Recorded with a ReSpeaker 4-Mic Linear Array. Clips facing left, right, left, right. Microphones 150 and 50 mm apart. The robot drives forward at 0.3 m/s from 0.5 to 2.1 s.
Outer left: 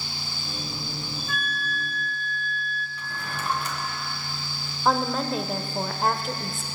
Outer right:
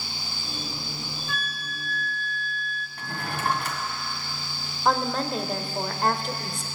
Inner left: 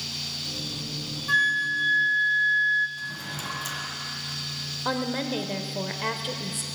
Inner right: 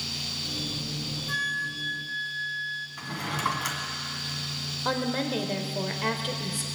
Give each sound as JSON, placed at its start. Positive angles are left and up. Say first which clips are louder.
{"t": 1.3, "sound": "a flute", "louder": "outer left 3 dB, inner left 8 dB", "side_deg": 50, "distance_m": 1.5}
{"t": 3.0, "sound": "a drawer", "louder": "outer right 7 dB, inner right 4 dB", "side_deg": -65, "distance_m": 1.6}
{"t": 4.8, "sound": "a woman speaking", "louder": "outer left 1 dB, even", "side_deg": 0, "distance_m": 1.0}